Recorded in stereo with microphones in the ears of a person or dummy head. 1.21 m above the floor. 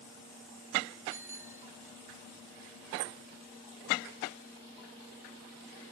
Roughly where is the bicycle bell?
Centre.